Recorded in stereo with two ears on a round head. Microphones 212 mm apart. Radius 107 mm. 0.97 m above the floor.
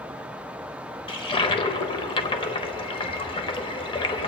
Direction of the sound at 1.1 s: 20° left (ahead or behind).